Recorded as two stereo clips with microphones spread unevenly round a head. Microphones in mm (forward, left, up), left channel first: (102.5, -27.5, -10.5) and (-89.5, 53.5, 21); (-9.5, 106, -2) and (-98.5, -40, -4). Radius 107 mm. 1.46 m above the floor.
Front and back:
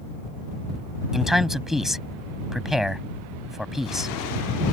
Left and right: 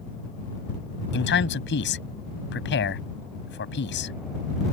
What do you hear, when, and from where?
1.1 s a man speaking: 70° left